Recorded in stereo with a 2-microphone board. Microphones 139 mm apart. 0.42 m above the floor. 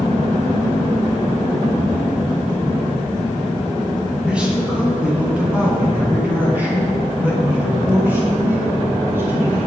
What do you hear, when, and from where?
4.2 s a man speaking: 10° right (ahead or behind), 4 m; by 9.7 s 15° right (ahead or behind), 6.5 m